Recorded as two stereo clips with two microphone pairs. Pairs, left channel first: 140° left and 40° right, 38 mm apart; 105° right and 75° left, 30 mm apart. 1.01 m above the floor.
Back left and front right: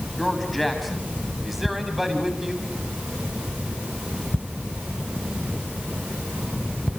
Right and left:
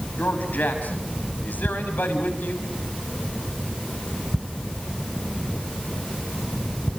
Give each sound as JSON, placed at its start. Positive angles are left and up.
{"t": 0.2, "sound": "a man speaking", "azimuth_deg": -130, "distance_m": 6.0}